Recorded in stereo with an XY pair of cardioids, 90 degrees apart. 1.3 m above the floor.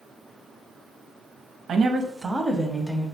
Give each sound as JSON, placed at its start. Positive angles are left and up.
{"t": 1.7, "sound": "a woman speaking", "azimuth_deg": -65, "distance_m": 0.5}